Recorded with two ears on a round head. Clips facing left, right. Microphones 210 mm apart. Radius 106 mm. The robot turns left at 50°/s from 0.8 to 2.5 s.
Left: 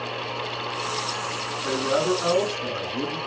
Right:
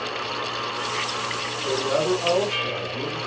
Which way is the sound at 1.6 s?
165° left.